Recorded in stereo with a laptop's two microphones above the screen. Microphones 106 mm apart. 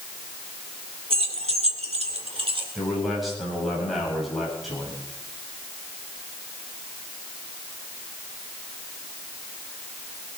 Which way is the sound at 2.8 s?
Centre (ahead or behind).